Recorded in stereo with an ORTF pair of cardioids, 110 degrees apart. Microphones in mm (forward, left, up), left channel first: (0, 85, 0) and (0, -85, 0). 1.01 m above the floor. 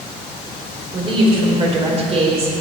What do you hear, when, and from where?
0.9 s a woman speaking: 30° right, 5 m; by 2.6 s 40° right, 4 m